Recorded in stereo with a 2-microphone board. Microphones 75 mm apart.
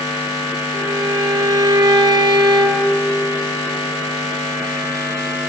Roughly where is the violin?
Right.